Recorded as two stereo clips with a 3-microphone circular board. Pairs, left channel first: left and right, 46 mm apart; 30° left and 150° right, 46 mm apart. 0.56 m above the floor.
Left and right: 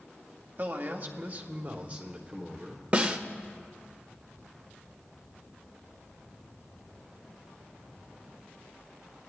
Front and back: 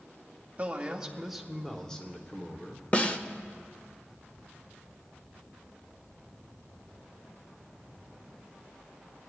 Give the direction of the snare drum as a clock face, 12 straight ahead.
1 o'clock.